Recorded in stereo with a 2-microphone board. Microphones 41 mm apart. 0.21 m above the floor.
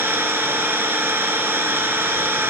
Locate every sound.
0.0 s an engine running: 65° right (ahead or behind), 2 m